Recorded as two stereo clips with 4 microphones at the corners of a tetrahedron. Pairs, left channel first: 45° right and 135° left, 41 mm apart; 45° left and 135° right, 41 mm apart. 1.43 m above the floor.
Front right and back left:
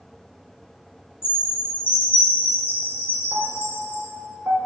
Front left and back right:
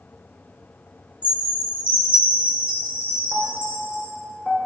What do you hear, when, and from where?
1.2 s a chime: 75° right, 1.6 m
3.3 s a piano: 125° left, 1.1 m